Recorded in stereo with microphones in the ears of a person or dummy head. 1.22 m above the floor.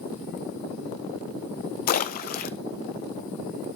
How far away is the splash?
About 0.5 m.